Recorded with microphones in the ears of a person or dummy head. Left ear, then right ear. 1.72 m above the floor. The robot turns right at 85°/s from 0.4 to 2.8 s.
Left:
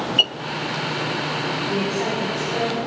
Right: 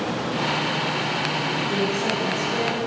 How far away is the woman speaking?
About 5 m.